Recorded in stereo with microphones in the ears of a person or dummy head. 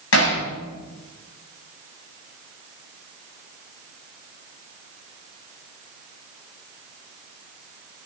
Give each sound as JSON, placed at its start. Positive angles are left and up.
{"t": 0.1, "sound": "hammering", "side_deg": 70, "distance_m": 8.5}